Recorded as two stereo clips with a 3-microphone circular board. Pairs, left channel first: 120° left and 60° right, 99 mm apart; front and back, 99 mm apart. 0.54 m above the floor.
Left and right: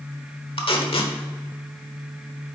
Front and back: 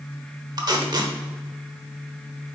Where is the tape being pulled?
140° left, 1.0 m.